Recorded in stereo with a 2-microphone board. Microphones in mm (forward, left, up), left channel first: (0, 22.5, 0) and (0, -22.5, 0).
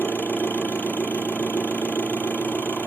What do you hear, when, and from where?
0.0 s an engine running: 45° left (ahead or behind), 0.7 m